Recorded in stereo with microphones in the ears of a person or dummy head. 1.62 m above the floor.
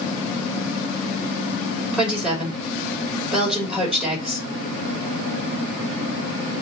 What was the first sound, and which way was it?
A woman speaking, 5° right (ahead or behind).